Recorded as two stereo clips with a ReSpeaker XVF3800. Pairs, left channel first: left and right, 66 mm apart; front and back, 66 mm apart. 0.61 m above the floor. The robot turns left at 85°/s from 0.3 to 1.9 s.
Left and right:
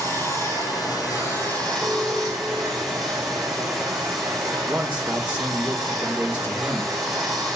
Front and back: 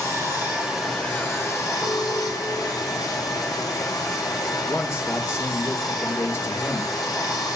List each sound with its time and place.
0.0 s running water: 135° left, 7 m; by 7.6 s straight ahead, 7 m
1.8 s an alarm: 40° left, 4 m; by 3.1 s 35° left, 4 m
4.7 s a man speaking: 30° right, 1.4 m